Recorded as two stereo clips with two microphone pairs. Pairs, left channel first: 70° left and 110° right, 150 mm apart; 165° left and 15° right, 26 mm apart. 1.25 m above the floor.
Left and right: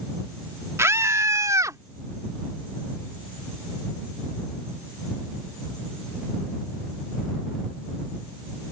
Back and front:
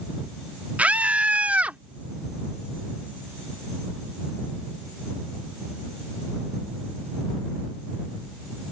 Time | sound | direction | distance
0.8 | a scream | 40° right | ?